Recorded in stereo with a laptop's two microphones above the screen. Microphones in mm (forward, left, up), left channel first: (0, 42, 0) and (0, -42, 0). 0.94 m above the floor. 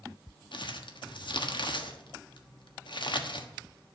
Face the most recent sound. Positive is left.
turn(degrees=70)  # may be behind; listen again after turning